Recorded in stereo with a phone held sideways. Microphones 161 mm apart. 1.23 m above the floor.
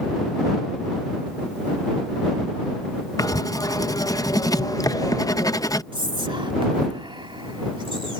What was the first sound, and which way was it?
Writing, 20° left (ahead or behind).